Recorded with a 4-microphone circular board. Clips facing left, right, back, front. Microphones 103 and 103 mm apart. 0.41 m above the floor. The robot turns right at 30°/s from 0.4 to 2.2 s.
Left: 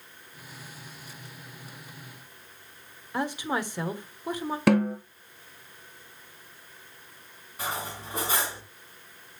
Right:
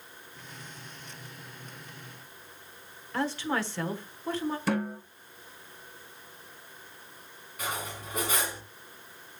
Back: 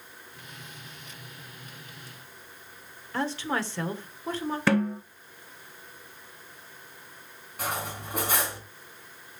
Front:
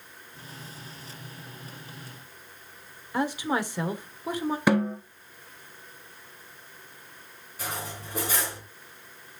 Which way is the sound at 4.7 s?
75° left.